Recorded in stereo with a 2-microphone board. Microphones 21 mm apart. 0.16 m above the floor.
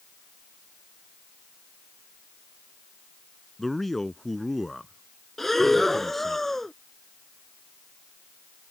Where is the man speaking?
10° left (ahead or behind).